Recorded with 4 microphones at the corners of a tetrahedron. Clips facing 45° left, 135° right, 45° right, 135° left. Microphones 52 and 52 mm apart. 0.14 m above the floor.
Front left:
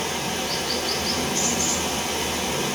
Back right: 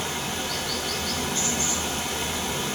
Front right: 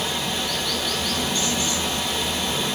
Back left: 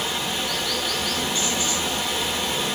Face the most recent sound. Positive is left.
turn(degrees=55)